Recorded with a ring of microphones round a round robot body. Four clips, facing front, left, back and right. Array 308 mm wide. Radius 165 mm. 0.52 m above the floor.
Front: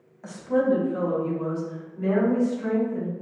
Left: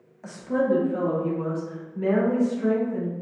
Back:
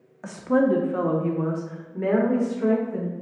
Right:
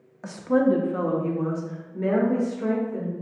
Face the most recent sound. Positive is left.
turn(degrees=-170)